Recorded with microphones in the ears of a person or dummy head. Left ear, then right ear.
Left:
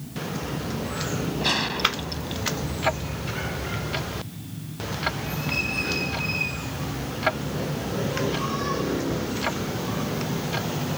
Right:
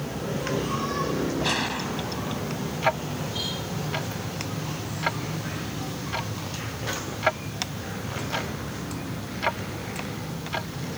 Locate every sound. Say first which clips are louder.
1.4 s a gunshot: left 7 dB; 5° right (ahead or behind)
2.8 s ticking: right 2 dB; 20° right (ahead or behind)